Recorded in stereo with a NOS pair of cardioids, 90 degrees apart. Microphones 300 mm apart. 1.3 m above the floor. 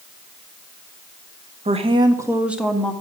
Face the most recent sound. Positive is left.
turn(degrees=5)